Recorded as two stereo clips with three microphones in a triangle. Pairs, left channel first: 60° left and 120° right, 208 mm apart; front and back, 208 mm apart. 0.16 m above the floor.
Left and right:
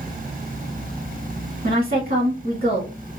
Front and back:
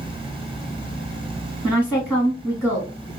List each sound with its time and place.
1.6 s a woman speaking: 75° right, 2.0 m